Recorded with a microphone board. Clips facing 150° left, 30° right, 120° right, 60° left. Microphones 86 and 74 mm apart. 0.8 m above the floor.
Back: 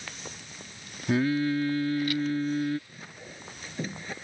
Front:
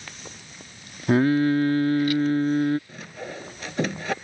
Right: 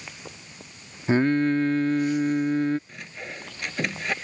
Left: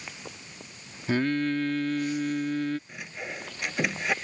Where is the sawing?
25° right.